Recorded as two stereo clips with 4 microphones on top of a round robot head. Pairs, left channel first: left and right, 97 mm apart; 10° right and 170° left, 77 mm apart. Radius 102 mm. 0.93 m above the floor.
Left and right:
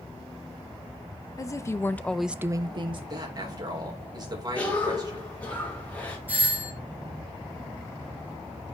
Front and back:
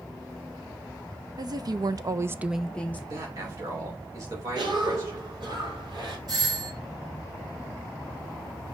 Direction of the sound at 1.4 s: 145° left.